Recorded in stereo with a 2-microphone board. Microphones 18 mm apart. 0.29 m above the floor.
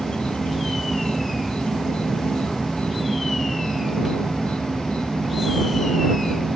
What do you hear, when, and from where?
0.0 s an insect: 80° left